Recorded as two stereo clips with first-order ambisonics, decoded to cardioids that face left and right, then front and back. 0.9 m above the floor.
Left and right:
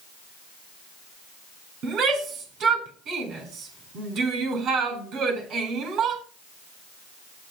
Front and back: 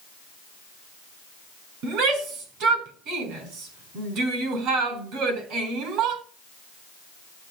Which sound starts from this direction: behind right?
A shout, at 1.8 s.